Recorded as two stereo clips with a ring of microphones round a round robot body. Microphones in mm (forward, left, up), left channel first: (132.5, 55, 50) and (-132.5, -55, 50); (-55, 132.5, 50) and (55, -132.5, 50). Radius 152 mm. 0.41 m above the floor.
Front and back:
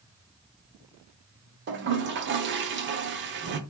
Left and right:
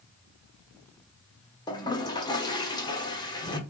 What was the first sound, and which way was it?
A toilet flushing, straight behind.